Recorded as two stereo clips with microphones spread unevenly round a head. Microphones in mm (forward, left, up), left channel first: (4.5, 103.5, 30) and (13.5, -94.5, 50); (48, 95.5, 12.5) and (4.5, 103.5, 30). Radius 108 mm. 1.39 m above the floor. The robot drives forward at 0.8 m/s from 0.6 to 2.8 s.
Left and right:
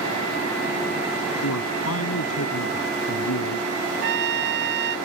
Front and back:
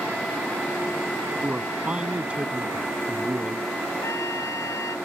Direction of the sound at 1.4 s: 105° left.